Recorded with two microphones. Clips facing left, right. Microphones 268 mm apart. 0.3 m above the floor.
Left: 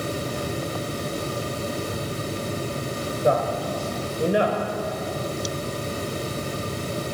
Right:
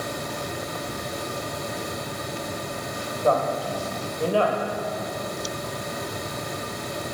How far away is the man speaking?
About 1.0 m.